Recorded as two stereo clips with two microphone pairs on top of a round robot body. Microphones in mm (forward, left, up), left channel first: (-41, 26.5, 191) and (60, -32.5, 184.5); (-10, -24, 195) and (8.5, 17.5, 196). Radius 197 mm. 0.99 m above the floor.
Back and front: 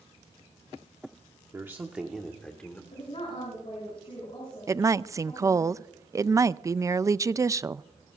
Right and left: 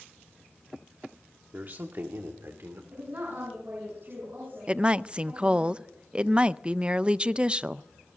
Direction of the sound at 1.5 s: 30° left.